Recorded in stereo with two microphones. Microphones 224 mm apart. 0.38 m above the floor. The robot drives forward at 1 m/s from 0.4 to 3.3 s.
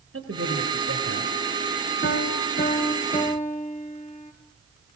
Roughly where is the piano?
Left.